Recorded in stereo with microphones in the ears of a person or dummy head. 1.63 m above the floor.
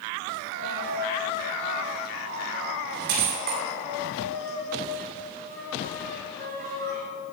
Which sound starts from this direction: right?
A dropped coin, at 0.5 s.